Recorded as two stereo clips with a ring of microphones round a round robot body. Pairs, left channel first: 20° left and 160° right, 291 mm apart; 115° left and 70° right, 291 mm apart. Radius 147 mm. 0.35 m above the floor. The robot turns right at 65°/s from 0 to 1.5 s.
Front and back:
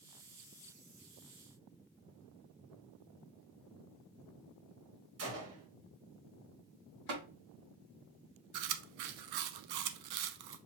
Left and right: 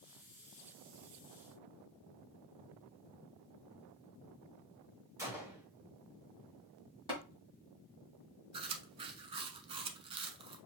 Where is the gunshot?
145° right, 1.9 m.